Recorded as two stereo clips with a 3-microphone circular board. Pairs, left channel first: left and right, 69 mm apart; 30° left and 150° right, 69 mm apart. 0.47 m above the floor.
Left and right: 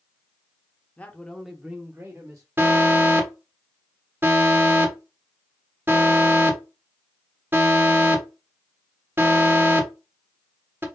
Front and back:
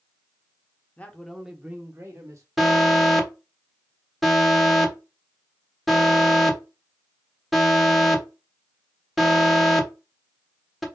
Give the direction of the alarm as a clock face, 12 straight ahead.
2 o'clock.